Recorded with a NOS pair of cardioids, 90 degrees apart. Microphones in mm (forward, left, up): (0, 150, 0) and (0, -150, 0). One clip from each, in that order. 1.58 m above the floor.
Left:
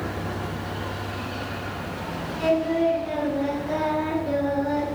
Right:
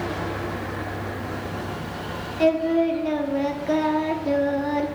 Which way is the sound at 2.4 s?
55° right.